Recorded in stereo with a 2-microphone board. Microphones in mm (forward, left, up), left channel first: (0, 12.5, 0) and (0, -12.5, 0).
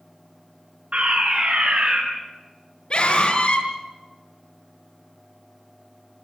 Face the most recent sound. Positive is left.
turn(degrees=40)  # may be behind; listen again after turning